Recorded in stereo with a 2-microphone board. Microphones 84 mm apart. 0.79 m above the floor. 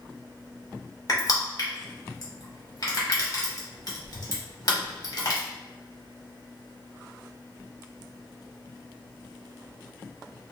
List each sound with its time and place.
1.1 s crushing: 50° left (ahead or behind), 1.2 m